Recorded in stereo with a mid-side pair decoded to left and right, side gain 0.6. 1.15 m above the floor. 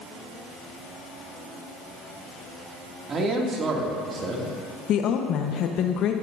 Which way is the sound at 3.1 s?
40° right.